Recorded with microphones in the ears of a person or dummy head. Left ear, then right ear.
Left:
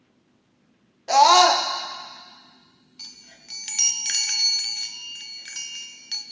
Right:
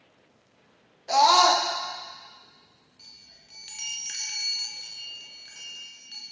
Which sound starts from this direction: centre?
A scream, at 1.1 s.